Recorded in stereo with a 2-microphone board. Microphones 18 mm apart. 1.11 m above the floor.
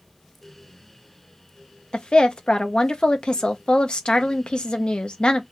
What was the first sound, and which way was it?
A woman speaking, 55° left (ahead or behind).